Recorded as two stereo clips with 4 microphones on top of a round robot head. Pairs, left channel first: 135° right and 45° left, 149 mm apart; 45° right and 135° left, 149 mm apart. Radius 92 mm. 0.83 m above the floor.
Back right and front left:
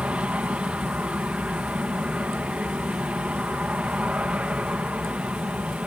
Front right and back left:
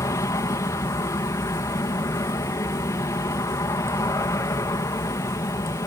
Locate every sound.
0.0 s an aircraft: 25° right